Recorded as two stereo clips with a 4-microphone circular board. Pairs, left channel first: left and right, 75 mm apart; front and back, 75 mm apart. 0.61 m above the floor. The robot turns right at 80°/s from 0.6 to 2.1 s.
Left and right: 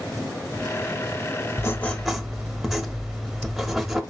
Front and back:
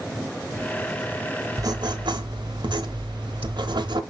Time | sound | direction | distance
1.6 | writing | 140° left | 1.0 m